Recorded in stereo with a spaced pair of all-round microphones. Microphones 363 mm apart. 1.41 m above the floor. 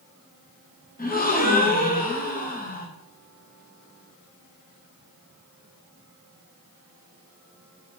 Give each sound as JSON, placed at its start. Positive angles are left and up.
{"t": 1.0, "sound": "a gasp", "side_deg": 25, "distance_m": 0.6}